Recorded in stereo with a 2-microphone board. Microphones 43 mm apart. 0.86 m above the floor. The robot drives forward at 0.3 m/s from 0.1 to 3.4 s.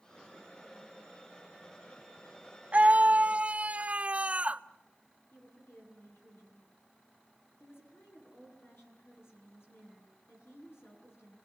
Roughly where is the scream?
Right.